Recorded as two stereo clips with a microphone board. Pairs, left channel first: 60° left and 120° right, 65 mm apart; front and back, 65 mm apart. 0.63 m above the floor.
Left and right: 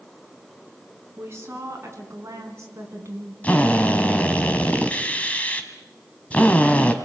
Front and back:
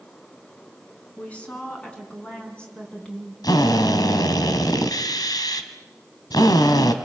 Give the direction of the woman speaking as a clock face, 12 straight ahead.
2 o'clock.